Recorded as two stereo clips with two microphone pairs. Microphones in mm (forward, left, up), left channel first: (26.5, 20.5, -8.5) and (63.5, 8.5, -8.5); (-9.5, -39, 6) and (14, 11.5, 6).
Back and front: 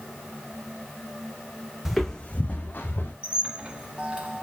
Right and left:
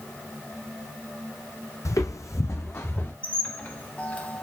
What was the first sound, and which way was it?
Footsteps, 95° right.